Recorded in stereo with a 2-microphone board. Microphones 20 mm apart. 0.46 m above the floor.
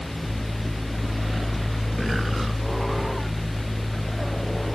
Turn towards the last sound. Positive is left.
No sound to turn to.